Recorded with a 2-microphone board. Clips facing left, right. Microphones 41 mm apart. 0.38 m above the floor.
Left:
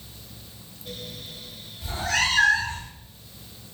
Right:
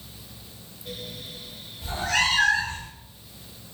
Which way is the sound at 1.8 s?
10° right (ahead or behind).